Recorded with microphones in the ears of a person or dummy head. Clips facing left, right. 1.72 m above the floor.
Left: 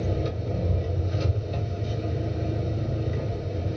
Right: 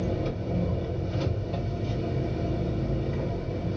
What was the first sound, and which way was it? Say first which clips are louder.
An engine running: even; 10° left (ahead or behind).